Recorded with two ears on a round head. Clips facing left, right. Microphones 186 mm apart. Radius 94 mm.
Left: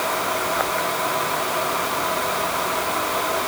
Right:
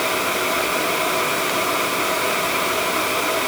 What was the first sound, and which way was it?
Only background noise.